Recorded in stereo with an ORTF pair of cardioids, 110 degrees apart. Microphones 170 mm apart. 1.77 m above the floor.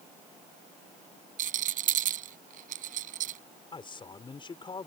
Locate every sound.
1.4 s a rattle: 55° right
3.7 s a man speaking: 30° left